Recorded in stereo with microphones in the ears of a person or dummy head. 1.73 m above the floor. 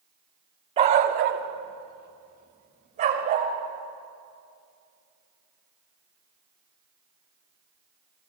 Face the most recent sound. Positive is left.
turn(degrees=-40)  # may be behind; listen again after turning